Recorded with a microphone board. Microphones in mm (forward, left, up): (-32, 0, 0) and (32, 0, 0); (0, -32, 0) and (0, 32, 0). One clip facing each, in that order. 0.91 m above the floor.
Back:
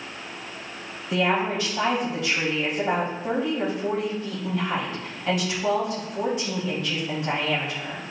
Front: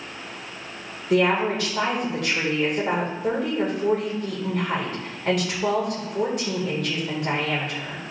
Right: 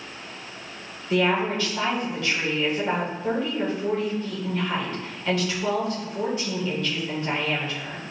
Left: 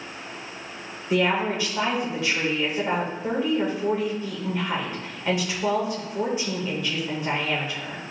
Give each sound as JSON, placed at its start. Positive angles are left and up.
{"t": 1.1, "sound": "a woman speaking", "azimuth_deg": 20, "distance_m": 3.0}